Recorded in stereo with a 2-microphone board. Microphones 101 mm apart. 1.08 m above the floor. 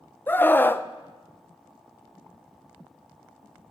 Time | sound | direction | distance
0.3 | a scream | 20° left (ahead or behind) | 0.6 m